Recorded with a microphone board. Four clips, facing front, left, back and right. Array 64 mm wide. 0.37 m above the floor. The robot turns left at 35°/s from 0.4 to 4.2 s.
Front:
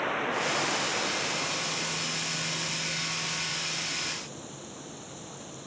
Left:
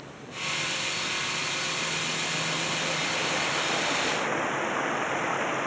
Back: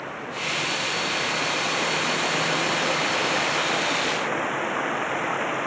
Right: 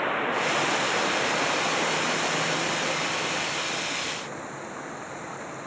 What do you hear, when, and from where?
0.0 s running water: 75° right; by 5.7 s 150° left